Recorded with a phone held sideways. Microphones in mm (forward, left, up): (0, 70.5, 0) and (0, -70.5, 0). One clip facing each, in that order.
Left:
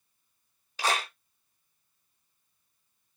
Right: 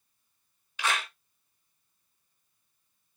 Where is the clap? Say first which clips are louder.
Left 2 dB; 35° left (ahead or behind), 0.5 m.